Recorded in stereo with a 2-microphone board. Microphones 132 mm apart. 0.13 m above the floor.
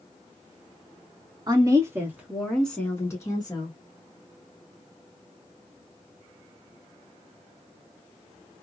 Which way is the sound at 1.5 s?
30° right (ahead or behind).